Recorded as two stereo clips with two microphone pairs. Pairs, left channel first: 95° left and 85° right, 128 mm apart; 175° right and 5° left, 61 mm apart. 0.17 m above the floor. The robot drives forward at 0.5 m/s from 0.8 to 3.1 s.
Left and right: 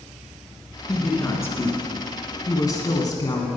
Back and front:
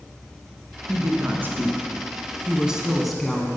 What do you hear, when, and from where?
0.9 s a woman speaking: 30° left, 1.7 m; by 3.5 s 95° left, 1.3 m